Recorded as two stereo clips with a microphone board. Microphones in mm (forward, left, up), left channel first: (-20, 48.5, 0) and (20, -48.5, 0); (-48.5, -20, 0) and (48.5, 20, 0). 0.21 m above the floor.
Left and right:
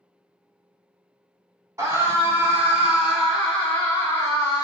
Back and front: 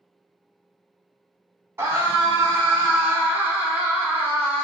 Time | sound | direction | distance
1.8 | a scream | 25° right | 1.4 m